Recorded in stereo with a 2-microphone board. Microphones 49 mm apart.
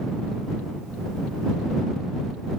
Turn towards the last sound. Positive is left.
No sound to turn to.